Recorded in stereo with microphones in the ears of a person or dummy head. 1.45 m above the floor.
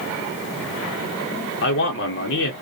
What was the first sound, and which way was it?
A man speaking, 65° left (ahead or behind).